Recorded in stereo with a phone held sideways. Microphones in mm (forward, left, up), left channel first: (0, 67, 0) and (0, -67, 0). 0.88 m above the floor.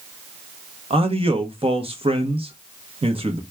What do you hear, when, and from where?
0.9 s a man speaking: 45° right (ahead or behind), 1.0 m